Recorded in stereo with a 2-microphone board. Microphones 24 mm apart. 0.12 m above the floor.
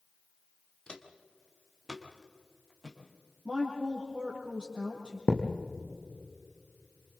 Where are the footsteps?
35° left (ahead or behind), 2 m; by 3.0 s 5° left (ahead or behind), 4.5 m.